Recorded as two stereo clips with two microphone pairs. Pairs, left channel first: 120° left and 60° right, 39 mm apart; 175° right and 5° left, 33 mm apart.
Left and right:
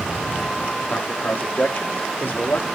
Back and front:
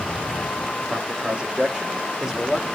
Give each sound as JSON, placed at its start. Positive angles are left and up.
{"t": 0.9, "sound": "a man speaking", "azimuth_deg": 65, "distance_m": 3.0}